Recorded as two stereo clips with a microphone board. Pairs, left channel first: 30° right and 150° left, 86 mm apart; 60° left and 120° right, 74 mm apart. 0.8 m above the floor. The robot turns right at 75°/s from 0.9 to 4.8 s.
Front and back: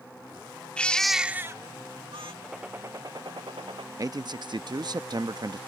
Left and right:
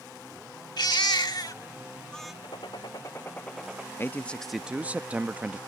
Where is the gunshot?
60° left; by 3.9 s 165° left.